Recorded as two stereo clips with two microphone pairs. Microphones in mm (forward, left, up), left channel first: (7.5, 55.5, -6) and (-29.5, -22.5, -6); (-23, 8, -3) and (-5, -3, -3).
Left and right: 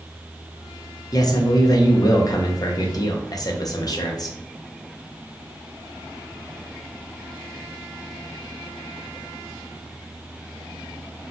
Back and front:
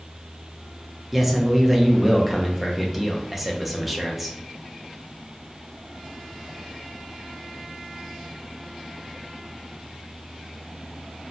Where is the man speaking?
55° left, 0.6 m.